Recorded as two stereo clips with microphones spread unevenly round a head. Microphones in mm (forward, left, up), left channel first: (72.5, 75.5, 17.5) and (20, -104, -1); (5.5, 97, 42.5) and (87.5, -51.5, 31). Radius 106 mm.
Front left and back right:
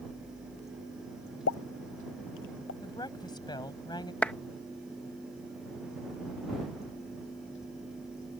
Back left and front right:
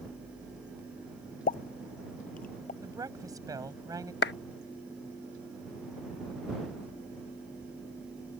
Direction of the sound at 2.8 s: 10° left.